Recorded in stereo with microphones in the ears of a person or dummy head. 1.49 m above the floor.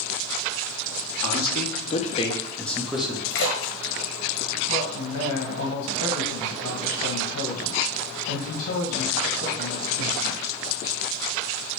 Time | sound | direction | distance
1.2 | a man speaking | 70° left (ahead or behind) | 1.1 m
3.3 | a splash | 60° left (ahead or behind) | 1.3 m
4.7 | a man speaking | 70° left (ahead or behind) | 2 m